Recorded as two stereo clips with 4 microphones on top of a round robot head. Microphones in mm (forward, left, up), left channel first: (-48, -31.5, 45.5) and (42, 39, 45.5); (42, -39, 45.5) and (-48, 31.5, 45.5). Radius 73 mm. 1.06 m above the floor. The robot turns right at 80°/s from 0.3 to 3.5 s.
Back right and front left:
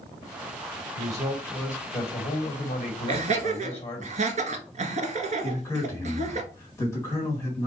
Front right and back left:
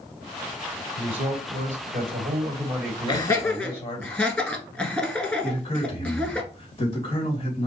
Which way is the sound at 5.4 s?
75° right.